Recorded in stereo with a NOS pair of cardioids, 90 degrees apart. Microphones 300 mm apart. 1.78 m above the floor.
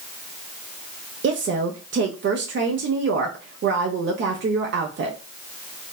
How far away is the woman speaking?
About 0.6 m.